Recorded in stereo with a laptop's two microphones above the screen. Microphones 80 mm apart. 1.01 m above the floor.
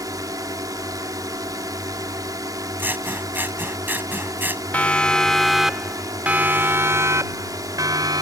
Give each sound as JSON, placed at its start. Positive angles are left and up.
{"t": 0.0, "sound": "a drone", "side_deg": -50}
{"t": 2.8, "sound": "scissors", "side_deg": -25}
{"t": 4.7, "sound": "a siren", "side_deg": 20}